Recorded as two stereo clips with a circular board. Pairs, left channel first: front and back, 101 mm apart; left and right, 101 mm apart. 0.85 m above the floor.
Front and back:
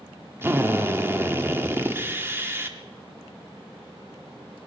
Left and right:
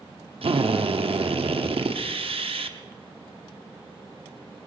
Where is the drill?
115° right, 1.0 m.